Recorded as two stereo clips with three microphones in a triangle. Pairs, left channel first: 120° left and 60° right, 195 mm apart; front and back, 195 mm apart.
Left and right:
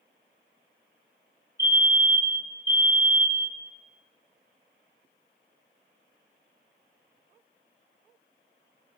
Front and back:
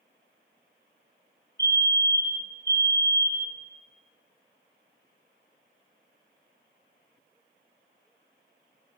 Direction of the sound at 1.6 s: 10° left.